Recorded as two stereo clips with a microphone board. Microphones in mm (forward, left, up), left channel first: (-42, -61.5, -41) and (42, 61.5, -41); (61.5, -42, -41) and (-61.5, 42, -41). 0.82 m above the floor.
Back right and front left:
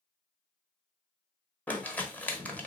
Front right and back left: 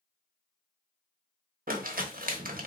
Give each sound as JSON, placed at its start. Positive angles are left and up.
{"t": 1.7, "sound": "crumpling", "azimuth_deg": 155, "distance_m": 0.9}